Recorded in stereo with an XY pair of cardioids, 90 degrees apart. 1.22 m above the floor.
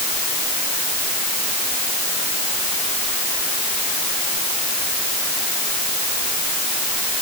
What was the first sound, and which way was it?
Only background noise.